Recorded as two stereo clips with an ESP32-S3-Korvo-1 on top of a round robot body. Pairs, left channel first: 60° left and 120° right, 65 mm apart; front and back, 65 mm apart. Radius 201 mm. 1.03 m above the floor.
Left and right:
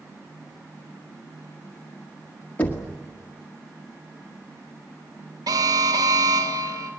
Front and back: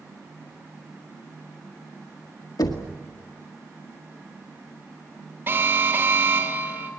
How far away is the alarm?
About 1.9 m.